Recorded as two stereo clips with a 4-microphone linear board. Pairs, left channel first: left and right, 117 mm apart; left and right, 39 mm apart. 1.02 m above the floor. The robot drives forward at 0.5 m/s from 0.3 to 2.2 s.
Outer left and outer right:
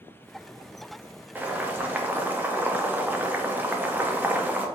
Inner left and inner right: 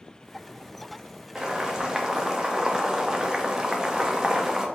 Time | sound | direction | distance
1.4 | boiling | 15° right (ahead or behind) | 0.7 m